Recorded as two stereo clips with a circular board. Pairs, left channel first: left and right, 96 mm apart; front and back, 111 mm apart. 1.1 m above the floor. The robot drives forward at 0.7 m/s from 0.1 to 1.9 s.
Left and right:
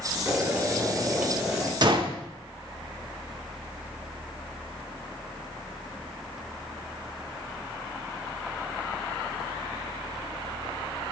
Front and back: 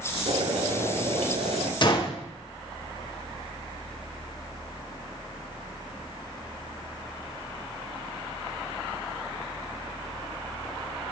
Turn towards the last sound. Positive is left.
turn(degrees=-50)